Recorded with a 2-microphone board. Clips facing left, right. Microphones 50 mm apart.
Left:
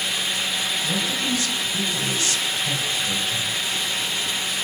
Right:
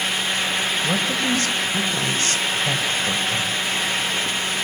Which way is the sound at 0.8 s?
45° right (ahead or behind).